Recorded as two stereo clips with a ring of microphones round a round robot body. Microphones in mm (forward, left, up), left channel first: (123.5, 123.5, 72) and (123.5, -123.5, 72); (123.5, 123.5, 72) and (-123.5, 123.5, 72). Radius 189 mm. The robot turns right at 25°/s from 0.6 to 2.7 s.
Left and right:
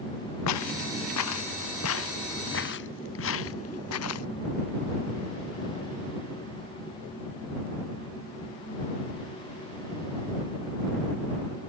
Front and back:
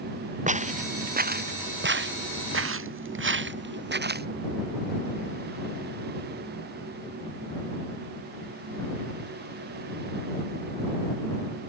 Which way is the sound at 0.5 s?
120° left.